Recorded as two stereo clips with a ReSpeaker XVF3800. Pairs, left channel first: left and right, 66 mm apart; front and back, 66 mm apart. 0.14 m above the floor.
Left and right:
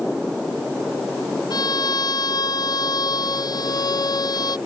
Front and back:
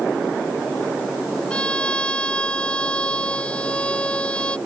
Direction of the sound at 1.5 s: 75° left.